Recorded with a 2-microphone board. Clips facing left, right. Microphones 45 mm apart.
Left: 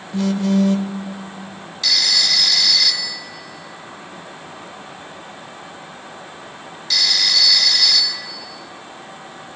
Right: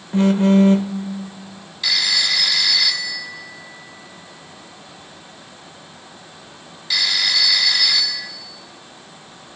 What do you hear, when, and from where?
0.1 s a phone buzzing: 30° right (ahead or behind), 1.0 m
1.8 s a phone ringing: 10° right (ahead or behind), 2 m